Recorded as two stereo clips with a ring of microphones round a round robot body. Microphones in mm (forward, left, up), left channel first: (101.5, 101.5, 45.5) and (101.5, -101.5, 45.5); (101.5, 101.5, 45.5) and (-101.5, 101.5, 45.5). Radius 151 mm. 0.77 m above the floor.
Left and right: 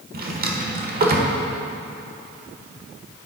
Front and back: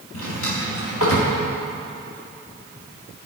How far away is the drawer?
About 1.2 m.